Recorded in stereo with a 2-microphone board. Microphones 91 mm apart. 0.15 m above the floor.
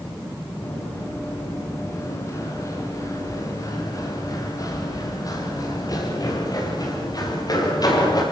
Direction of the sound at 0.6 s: 25° left (ahead or behind).